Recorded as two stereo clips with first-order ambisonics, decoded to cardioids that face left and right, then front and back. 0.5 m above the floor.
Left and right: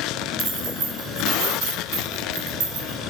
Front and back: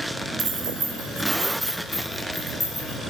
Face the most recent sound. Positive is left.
turn(degrees=-80)